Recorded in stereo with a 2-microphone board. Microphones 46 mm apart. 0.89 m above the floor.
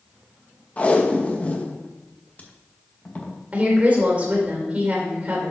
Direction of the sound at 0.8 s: 30° left (ahead or behind).